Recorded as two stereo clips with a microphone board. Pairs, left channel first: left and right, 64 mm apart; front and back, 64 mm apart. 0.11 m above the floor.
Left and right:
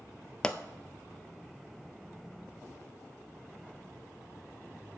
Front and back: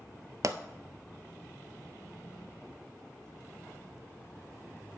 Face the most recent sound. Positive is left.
turn(degrees=165)